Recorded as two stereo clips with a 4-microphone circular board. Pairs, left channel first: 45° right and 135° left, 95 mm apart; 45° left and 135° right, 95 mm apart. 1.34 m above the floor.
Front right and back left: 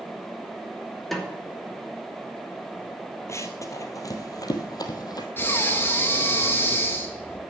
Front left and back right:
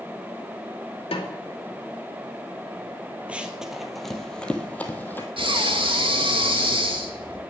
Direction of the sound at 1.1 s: 45° left.